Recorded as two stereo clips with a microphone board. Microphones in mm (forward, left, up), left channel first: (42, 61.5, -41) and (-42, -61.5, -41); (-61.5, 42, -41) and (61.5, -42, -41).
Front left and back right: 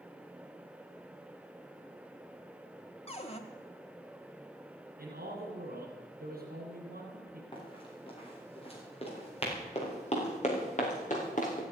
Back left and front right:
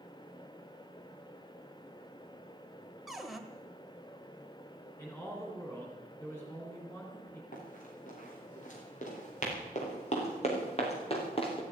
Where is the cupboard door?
55° left, 1.4 m.